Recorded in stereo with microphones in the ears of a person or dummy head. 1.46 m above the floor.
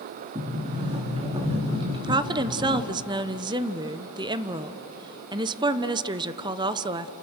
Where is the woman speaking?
25° right (ahead or behind), 0.8 m.